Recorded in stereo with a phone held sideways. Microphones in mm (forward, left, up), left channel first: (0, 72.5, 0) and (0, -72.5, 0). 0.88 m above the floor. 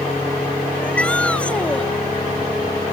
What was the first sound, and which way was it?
A shout, 5° left (ahead or behind).